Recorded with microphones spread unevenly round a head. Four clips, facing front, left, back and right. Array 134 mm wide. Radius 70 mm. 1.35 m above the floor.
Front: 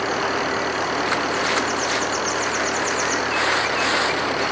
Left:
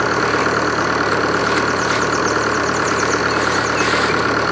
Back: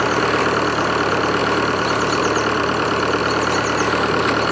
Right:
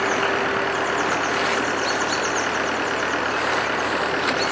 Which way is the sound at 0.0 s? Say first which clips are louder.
Left 5 dB, back 5 dB; 135° left.